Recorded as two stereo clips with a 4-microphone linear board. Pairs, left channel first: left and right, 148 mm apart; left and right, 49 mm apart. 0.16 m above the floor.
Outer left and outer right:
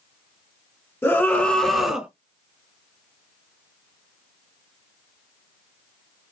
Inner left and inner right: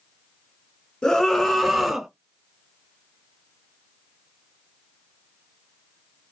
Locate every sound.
1.0 s a scream: 15° left (ahead or behind), 1.5 m; by 2.1 s 5° right (ahead or behind), 1.3 m